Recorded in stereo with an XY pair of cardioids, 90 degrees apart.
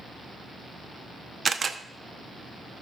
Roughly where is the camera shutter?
Ahead right.